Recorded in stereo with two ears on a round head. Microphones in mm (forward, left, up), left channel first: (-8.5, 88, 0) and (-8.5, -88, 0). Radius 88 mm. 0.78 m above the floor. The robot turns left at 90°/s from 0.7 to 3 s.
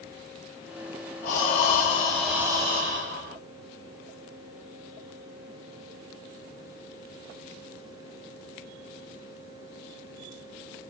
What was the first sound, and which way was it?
Breathing, 95° left.